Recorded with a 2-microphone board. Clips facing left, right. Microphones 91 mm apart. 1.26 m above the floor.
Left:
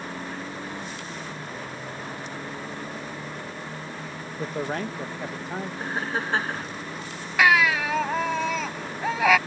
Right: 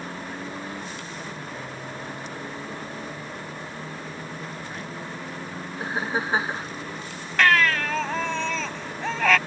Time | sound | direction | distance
4.4 | a man speaking | 80° left | ?
5.8 | laughter | 10° right (ahead or behind) | ?
7.4 | a baby crying | 10° left (ahead or behind) | ?